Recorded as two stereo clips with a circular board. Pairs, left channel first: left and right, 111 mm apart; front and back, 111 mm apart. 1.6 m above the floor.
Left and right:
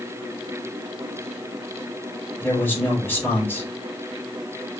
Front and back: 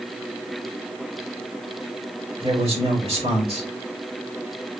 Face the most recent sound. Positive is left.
turn(degrees=160)